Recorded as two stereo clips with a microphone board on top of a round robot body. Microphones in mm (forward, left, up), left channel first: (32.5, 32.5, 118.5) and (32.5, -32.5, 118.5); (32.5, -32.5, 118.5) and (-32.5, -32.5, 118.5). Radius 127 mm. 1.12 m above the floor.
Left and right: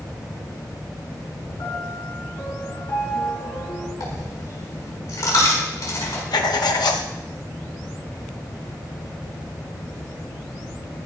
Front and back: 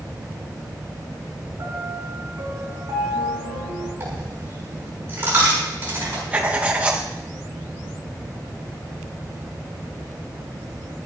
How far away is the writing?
About 1.0 m.